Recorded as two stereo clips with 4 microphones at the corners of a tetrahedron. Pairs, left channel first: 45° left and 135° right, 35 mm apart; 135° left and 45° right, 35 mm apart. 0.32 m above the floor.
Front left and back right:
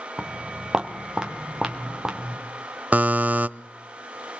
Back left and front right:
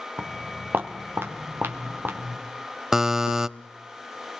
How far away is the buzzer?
About 0.6 m.